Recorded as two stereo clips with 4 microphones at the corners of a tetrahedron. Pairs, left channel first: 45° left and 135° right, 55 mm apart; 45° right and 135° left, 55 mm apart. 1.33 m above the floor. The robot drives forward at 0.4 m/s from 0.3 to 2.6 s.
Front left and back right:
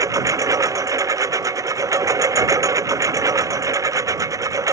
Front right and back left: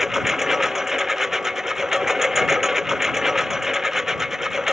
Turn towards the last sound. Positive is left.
turn(degrees=-145)